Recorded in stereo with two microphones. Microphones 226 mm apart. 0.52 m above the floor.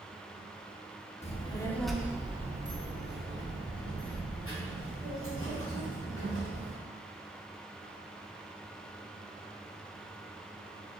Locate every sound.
1.2 s a child speaking: 30° left (ahead or behind), 0.7 m; by 6.8 s 80° right, 2.5 m